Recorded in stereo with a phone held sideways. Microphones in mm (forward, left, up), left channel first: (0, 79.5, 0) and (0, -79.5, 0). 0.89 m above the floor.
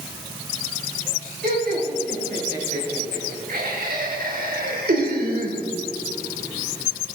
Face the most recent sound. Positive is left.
turn(degrees=-85)